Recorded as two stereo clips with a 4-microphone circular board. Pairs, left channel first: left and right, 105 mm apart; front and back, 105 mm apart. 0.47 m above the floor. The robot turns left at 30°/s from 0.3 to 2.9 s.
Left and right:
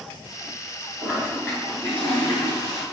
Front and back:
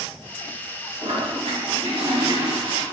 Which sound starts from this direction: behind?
A toilet flushing, at 1.0 s.